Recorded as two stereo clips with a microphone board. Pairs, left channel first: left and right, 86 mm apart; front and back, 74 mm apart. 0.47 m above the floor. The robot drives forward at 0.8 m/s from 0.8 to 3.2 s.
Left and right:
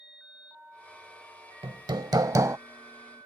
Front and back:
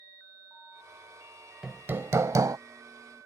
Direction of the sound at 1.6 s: 105° right.